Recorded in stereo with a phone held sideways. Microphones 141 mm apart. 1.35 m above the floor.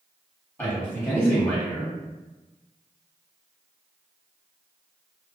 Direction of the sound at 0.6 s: 15° left (ahead or behind).